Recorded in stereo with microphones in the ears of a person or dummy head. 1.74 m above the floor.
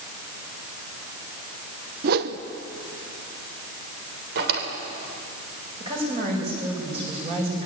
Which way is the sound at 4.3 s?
65° right (ahead or behind).